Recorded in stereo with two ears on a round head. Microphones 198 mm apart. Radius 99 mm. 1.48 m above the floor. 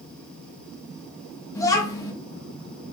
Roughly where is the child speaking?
Centre.